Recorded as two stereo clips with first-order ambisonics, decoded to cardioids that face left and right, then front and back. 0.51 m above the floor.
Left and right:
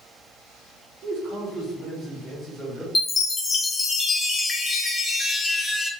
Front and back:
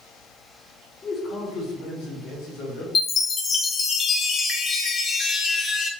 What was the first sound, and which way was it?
A man speaking, 60° right.